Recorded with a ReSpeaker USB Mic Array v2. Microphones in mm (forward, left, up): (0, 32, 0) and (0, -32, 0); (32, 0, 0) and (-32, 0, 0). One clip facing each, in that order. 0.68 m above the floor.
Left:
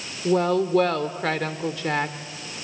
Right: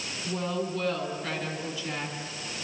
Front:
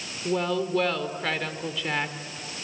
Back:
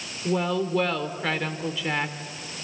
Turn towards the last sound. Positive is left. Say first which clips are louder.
# left 11 dB, back 1 dB
turn(degrees=95)